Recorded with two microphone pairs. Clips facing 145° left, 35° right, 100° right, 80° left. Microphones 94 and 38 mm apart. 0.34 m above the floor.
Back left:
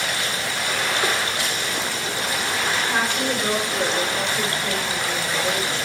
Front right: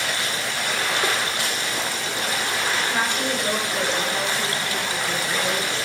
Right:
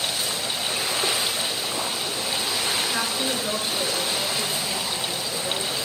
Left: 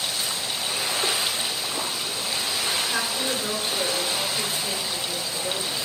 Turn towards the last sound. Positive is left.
turn(degrees=160)